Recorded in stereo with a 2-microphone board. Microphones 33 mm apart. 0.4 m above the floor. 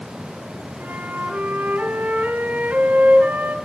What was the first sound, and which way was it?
A flute, 70° right (ahead or behind).